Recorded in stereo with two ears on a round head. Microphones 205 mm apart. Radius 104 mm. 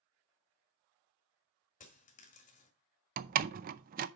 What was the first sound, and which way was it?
A dropped coin, 35° left (ahead or behind).